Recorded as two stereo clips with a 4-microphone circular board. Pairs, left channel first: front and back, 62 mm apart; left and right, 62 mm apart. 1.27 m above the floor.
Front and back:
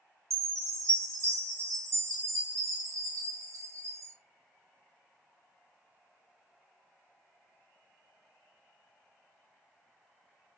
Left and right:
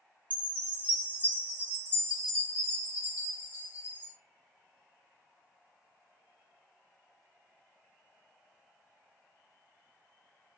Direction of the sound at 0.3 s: 150° right.